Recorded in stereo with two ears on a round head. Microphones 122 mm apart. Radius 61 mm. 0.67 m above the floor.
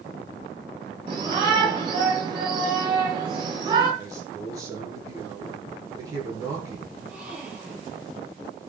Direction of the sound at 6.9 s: 5° right (ahead or behind).